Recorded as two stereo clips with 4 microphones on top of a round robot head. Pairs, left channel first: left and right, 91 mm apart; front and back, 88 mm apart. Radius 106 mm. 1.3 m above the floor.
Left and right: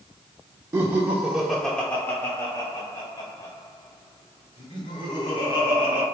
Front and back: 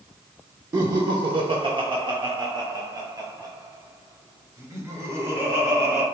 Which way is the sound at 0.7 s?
140° right.